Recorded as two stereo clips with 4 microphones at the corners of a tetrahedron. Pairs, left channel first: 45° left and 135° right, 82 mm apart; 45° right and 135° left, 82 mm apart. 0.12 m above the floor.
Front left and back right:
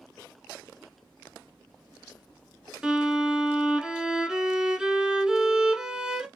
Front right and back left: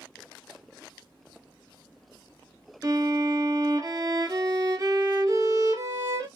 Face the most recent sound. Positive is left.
turn(degrees=145)